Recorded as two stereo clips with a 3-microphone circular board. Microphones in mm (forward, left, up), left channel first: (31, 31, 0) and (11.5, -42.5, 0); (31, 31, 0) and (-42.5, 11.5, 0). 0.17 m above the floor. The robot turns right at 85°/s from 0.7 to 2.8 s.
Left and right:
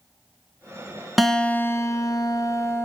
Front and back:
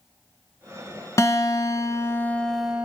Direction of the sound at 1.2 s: 15° right.